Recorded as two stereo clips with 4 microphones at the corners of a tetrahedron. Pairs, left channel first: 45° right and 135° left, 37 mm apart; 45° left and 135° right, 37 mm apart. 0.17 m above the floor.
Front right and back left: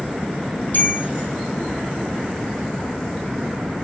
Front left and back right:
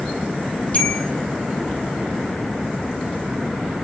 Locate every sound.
0.7 s a bell: 10° right, 4.5 m